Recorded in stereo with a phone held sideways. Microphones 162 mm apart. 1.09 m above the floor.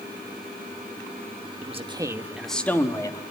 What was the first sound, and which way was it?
A man speaking, 45° right (ahead or behind).